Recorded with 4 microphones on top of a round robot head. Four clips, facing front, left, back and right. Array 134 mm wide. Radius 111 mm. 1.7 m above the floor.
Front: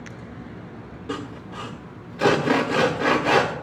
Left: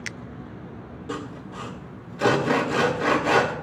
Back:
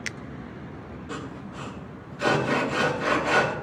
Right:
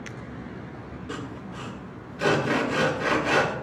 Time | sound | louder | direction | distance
1.1 | sawing | left 3 dB, front 5 dB | 20° left | 1.5 m